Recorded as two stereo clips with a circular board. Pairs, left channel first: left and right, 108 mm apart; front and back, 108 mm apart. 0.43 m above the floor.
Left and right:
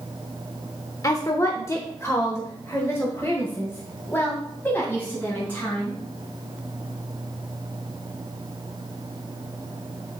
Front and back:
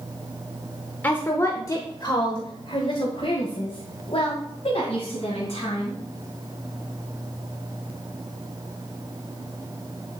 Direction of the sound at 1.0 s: 60° left.